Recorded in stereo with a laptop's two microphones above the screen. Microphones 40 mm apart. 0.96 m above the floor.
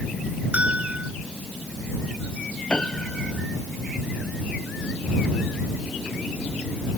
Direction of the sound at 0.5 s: 35° right (ahead or behind).